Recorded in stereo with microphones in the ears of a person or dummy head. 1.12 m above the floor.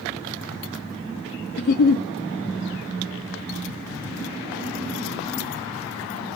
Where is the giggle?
50° left (ahead or behind), 0.7 m.